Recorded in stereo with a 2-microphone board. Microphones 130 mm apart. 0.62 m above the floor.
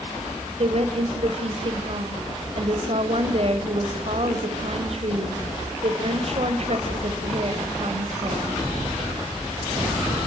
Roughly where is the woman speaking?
Right.